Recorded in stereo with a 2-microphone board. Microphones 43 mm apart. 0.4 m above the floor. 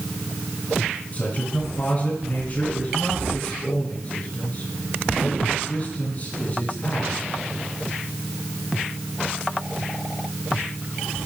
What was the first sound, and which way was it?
A man speaking, 35° left (ahead or behind).